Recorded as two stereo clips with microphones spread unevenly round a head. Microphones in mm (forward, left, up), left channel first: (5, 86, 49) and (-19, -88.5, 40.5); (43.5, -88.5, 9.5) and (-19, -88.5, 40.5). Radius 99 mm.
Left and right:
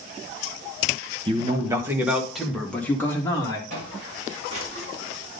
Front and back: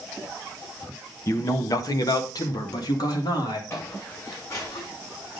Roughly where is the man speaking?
Ahead right.